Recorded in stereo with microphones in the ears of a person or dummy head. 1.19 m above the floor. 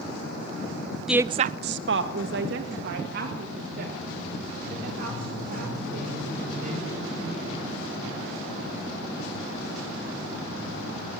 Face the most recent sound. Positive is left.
turn(degrees=-55)  # may be behind; listen again after turning